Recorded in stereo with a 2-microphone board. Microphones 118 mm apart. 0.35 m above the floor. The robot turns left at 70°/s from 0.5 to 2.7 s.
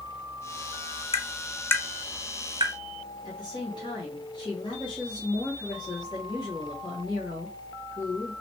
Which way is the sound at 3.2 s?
40° left (ahead or behind).